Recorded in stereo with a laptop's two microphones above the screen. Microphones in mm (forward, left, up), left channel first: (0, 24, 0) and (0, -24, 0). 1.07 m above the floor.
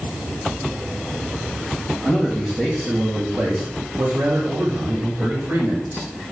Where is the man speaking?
10° right (ahead or behind), 1.0 m; by 6.1 s 60° right (ahead or behind), 1.9 m.